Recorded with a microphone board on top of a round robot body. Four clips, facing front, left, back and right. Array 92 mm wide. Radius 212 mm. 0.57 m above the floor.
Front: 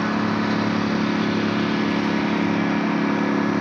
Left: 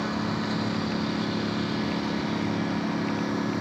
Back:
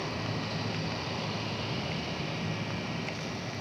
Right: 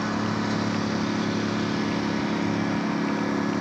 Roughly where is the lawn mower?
Ahead.